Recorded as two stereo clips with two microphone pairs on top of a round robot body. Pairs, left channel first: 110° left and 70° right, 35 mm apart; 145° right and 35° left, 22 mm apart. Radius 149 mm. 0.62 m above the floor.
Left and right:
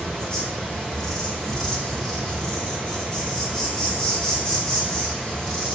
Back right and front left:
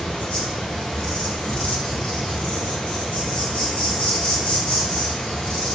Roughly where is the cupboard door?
I don't hear a cupboard door.